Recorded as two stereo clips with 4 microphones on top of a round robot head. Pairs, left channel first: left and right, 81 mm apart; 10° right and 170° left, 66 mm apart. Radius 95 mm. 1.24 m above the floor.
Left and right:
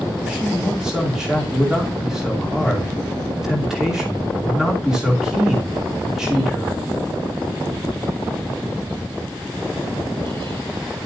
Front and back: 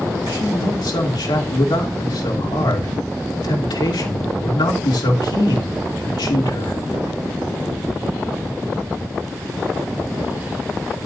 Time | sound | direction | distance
0.3 | a man speaking | 5° right | 2.5 m